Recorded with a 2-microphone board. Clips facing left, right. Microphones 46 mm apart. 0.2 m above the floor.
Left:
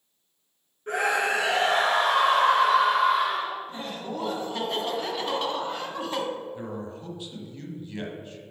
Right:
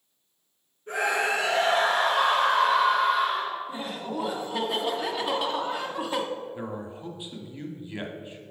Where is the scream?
55° left (ahead or behind), 3 m; by 3.6 s 70° left (ahead or behind), 4 m.